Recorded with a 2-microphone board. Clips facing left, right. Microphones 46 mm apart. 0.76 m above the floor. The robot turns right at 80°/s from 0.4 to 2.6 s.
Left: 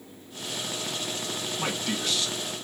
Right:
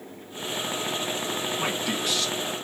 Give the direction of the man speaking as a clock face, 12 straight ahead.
1 o'clock.